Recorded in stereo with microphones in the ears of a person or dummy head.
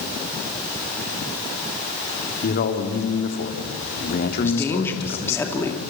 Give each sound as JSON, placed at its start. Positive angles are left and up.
{"t": 2.4, "sound": "a man speaking", "side_deg": 45, "distance_m": 3.5}
{"t": 4.4, "sound": "a woman speaking", "side_deg": 15, "distance_m": 2.5}